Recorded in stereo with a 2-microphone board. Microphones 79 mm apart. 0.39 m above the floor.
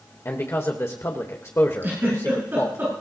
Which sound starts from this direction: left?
A man speaking, at 0.2 s.